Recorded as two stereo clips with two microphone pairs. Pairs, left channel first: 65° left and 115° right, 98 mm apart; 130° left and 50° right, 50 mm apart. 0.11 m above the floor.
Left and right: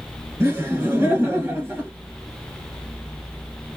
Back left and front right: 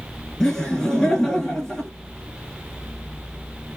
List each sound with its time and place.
0.4 s laughter: 145° right, 2.0 m